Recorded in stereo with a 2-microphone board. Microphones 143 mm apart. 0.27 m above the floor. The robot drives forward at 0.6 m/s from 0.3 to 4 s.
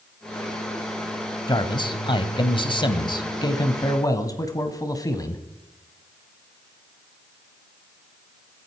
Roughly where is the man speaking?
Left.